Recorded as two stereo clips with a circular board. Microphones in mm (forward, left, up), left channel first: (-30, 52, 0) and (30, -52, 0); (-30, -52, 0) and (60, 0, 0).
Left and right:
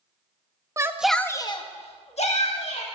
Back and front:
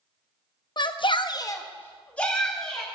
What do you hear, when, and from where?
0.8 s a shout: 120° right, 0.8 m; by 2.9 s 125° left, 2 m